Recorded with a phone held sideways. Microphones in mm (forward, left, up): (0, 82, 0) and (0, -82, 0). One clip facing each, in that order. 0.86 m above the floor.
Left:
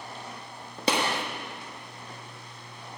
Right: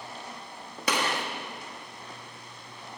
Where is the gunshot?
25° left (ahead or behind), 1.2 m.